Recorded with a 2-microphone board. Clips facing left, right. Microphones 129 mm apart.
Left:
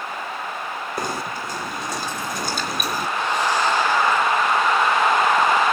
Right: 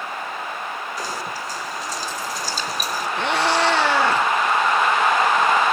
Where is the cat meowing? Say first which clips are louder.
Right 2 dB; 70° right (ahead or behind), 3 m.